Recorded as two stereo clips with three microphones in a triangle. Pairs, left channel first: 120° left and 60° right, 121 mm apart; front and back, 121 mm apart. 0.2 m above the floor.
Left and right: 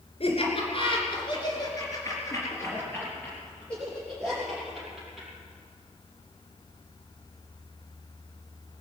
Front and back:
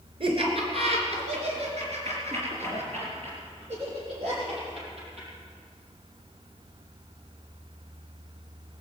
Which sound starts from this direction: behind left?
Laughter, at 0.2 s.